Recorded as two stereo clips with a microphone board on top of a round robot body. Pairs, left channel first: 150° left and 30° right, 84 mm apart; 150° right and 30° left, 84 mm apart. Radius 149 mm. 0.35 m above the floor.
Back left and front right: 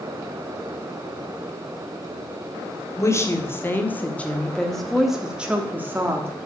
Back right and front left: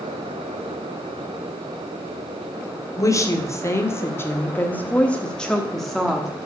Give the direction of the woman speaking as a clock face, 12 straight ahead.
6 o'clock.